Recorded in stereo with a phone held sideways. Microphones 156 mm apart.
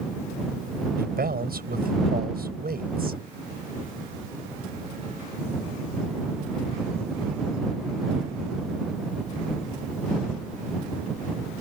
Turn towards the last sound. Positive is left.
turn(degrees=-80)